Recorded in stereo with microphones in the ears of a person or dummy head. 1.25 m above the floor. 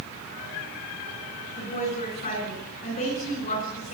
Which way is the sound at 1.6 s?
40° left (ahead or behind).